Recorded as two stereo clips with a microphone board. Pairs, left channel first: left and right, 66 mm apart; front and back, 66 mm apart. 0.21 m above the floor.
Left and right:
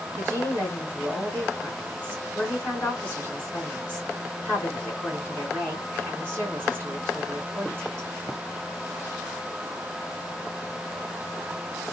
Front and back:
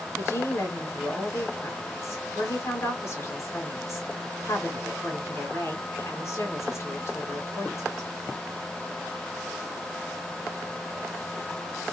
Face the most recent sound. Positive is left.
turn(degrees=30)